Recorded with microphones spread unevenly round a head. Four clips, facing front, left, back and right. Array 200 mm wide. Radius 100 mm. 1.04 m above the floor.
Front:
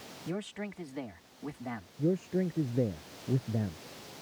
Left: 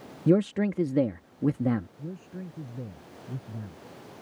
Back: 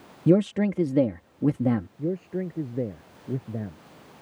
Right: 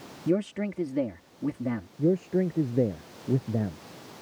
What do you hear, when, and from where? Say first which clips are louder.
0.3 s a man speaking: left 4 dB, back 18 dB; 175° left
2.0 s a man speaking: right 15 dB, back 1 dB; 100° right